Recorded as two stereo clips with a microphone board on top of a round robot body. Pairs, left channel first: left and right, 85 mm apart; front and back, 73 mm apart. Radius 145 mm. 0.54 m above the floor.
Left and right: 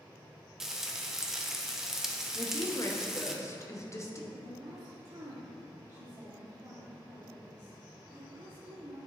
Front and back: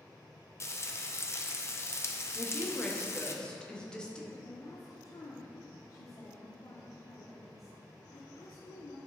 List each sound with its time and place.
0.6 s frying: 10° right, 1.0 m
2.4 s a woman speaking: 75° left, 1.3 m
4.3 s a woman speaking: 30° right, 1.4 m